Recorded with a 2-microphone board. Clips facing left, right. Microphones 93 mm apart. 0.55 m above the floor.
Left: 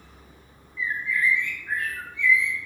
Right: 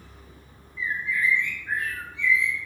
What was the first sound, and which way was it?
A bird, 20° right (ahead or behind).